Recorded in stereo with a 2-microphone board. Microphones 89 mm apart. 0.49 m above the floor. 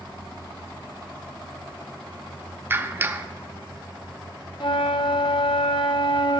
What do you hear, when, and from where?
2.7 s a clap: 25° right (ahead or behind), 0.5 m
4.6 s a flute: 65° left (ahead or behind), 0.6 m